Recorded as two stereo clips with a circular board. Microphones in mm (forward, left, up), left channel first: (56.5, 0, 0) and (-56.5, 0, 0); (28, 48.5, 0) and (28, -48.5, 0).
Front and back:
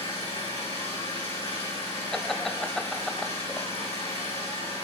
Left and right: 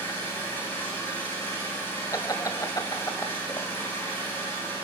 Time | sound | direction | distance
0.0 | an engine running | 20° left | 9.5 m
2.1 | laughter | 85° left | 1.1 m